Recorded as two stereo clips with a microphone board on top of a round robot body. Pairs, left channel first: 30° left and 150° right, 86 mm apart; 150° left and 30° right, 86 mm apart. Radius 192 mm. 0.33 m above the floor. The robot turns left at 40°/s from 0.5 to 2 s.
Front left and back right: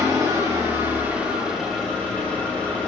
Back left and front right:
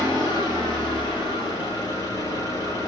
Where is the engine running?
165° left, 5.5 m; by 2.9 s 105° left, 5.5 m.